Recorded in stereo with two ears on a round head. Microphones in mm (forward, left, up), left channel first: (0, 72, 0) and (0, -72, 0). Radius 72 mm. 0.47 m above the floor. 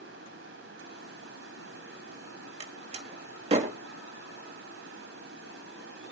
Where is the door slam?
40° right (ahead or behind), 1.7 m.